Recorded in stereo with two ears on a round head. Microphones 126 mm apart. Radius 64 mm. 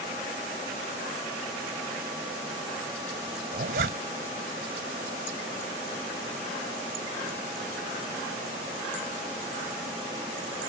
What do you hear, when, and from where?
3.5 s a zipper: 70° right (ahead or behind)